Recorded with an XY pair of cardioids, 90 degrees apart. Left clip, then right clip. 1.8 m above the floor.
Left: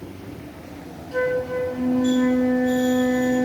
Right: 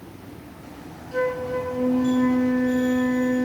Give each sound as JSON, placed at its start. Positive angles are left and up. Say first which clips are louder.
{"t": 1.1, "sound": "a flute", "louder": "left 2 dB", "azimuth_deg": 15, "distance_m": 9.5}